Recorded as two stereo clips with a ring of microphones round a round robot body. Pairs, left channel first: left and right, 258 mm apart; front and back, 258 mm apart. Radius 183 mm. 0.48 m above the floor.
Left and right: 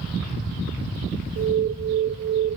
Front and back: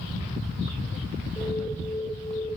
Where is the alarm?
90° right, 1.0 m.